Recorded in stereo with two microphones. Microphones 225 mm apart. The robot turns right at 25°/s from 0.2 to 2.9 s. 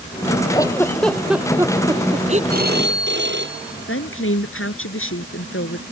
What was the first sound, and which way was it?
A giggle, 15° left (ahead or behind).